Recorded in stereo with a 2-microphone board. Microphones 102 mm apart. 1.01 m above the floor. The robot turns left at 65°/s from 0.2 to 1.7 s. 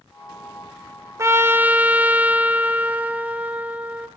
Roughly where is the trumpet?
Behind right.